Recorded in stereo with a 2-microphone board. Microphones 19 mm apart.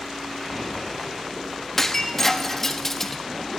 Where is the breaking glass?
25° left (ahead or behind), 1.1 m.